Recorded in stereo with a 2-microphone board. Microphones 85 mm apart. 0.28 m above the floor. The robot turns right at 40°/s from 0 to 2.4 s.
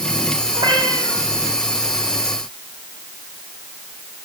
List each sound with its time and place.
0.5 s a cat meowing: 65° right (ahead or behind), 8.5 m; by 1.2 s 40° right (ahead or behind), 8.5 m